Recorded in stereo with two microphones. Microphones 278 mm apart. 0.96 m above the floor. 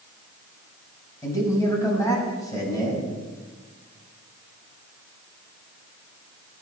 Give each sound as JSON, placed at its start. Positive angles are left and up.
{"t": 1.2, "sound": "a man speaking", "side_deg": 10, "distance_m": 6.0}